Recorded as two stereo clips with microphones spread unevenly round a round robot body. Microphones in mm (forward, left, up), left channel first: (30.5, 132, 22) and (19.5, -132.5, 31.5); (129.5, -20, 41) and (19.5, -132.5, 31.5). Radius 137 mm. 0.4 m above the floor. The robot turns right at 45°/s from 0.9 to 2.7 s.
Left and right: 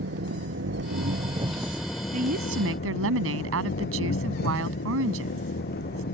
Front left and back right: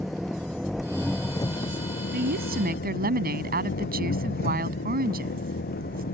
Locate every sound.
0.0 s an engine running: 45° right; by 6.1 s 35° left
2.1 s a woman speaking: 155° right; by 6.0 s 130° right